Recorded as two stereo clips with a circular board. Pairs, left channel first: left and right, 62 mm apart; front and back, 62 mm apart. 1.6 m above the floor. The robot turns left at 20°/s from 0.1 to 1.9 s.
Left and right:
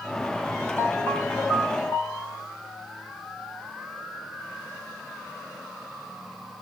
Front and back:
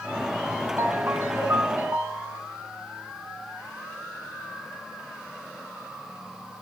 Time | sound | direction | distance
0.8 | a ringtone | 145° left | 8 m